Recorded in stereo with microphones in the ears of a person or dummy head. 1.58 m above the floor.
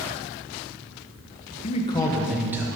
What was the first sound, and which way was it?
A man speaking, 35° left (ahead or behind).